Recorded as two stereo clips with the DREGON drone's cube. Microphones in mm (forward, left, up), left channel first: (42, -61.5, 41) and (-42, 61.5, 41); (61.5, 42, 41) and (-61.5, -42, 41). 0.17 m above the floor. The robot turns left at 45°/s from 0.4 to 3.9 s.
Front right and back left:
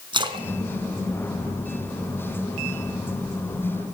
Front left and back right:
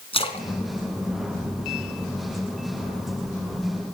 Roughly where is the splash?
Left.